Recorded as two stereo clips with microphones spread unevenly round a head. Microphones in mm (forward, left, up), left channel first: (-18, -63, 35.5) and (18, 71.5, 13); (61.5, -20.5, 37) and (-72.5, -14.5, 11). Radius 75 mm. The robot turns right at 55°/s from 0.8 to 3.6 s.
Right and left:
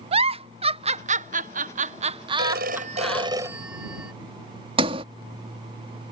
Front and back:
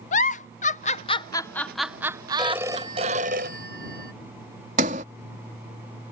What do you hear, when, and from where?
0.1 s a giggle: 35° left; by 3.3 s 175° left
2.4 s a phone ringing: 90° left; by 4.1 s 155° left
4.8 s a sliding door: 130° left